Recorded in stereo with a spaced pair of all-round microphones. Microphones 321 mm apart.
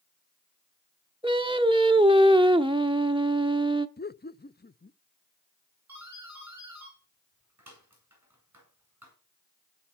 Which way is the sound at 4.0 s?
30° left (ahead or behind).